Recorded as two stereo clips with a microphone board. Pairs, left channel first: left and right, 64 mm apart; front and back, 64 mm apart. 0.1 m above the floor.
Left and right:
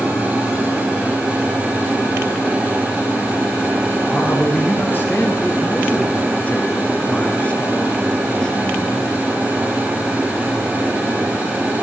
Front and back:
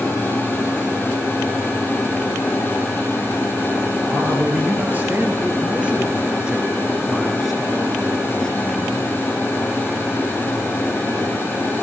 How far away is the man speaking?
About 2.5 m.